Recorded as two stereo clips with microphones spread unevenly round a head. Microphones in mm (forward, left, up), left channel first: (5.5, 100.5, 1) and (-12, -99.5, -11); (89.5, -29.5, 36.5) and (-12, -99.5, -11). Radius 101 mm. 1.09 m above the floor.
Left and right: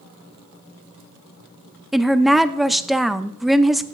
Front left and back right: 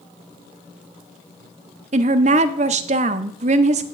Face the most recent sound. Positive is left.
turn(degrees=175)